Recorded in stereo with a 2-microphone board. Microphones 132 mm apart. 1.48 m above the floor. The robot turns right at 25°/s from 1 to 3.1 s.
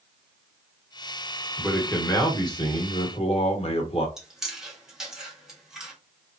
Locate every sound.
1.6 s a man speaking: 10° left, 1.1 m; by 4.1 s 45° left, 1.1 m
4.2 s chewing: 5° right (ahead or behind), 1.3 m